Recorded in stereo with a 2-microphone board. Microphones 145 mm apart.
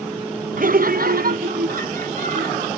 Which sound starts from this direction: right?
Laughter, at 0.6 s.